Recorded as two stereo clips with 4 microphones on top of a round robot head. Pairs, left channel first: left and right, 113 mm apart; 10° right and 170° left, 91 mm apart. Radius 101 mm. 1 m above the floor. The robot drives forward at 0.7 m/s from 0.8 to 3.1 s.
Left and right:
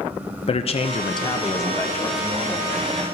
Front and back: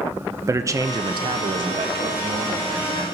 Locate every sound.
0.5 s a man speaking: 115° left, 0.5 m; by 3.1 s 165° left, 1.8 m